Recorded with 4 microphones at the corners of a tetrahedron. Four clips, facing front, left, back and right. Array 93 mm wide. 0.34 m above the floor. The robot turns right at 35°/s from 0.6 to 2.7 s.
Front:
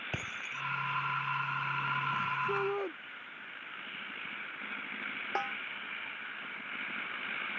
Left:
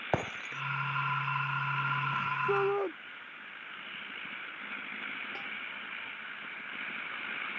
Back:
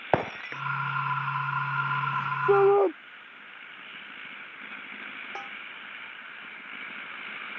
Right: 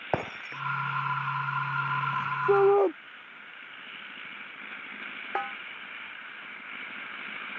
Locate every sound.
0.1 s breaking glass: 175° right
2.5 s a shout: 150° right; by 2.9 s 145° right
5.3 s a snare drum: 65° right